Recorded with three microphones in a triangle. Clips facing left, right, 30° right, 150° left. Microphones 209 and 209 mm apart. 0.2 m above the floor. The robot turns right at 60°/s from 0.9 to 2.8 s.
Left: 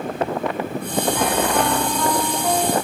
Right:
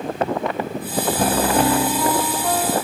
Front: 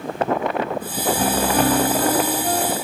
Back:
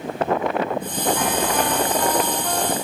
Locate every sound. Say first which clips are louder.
1.2 s a piano: right 4 dB, front 3 dB; 70° right; by 2.8 s 30° left